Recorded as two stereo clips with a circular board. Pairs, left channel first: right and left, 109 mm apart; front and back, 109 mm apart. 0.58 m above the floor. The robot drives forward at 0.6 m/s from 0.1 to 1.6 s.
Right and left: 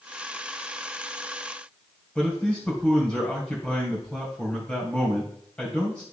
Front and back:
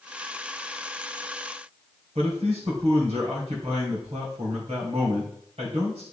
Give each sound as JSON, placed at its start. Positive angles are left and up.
{"t": 2.1, "sound": "a man speaking", "azimuth_deg": -170, "distance_m": 3.0}